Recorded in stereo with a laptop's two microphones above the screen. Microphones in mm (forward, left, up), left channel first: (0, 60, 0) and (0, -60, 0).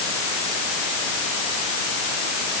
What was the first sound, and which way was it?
Only background noise.